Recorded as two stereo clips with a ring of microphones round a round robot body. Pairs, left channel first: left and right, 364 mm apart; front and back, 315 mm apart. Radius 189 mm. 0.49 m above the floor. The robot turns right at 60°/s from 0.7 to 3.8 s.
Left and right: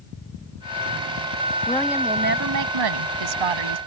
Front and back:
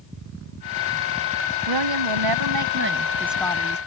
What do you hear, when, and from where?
1.7 s a woman speaking: 170° left; by 3.8 s 65° right